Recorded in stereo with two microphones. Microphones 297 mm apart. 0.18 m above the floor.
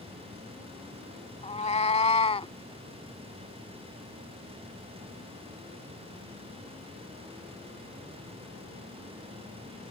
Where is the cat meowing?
25° left (ahead or behind); by 2.5 s 20° left (ahead or behind).